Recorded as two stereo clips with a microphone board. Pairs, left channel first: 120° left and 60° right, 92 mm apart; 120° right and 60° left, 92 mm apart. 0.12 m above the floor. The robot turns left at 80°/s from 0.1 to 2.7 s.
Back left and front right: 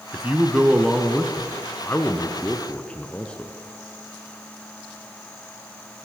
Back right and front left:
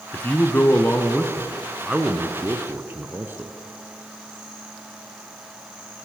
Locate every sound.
0.1 s a man speaking: 90° right, 1.4 m; by 3.5 s 65° left, 1.4 m